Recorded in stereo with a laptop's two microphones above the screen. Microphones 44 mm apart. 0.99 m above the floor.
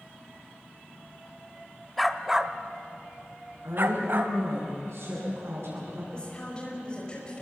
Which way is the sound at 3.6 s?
70° right (ahead or behind).